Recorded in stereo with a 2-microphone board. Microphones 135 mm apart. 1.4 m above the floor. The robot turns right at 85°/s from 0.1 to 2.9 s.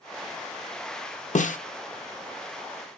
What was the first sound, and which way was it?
A snare drum, 65° left (ahead or behind).